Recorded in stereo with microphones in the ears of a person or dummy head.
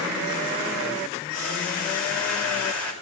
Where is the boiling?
80° left, 5 m.